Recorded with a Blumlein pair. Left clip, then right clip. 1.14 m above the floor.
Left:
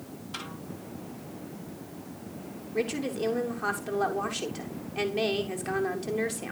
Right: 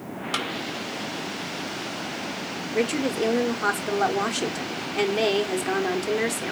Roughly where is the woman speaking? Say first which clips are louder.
Right 5 dB; ahead.